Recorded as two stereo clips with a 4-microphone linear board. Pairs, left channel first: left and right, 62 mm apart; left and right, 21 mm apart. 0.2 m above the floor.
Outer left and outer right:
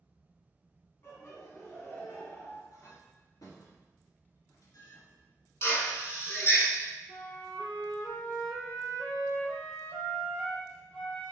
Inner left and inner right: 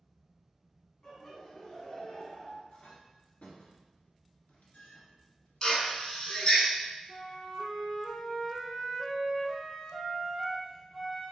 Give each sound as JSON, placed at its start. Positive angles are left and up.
{"t": 1.0, "sound": "laughter", "side_deg": 35, "distance_m": 1.8}
{"t": 2.7, "sound": "a clink", "side_deg": 70, "distance_m": 1.5}
{"t": 5.6, "sound": "a drill", "side_deg": 45, "distance_m": 1.1}
{"t": 7.1, "sound": "a flute", "side_deg": 20, "distance_m": 1.0}